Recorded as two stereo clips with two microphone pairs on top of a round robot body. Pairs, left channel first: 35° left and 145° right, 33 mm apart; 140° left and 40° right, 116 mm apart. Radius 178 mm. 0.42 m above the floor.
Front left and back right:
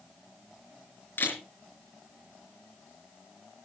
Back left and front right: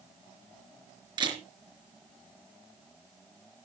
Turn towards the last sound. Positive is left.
turn(degrees=10)